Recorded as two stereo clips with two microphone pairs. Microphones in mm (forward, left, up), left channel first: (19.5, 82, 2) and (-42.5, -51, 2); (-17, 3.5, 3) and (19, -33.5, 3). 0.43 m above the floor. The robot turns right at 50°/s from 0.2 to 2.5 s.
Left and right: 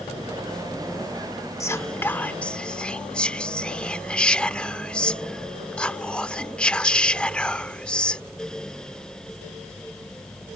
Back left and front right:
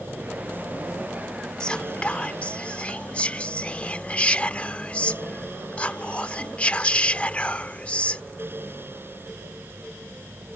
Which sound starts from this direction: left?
Whispering, at 1.6 s.